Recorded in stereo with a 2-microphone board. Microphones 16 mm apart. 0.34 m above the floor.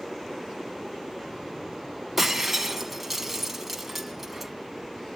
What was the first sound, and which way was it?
Breaking glass, 10° right (ahead or behind).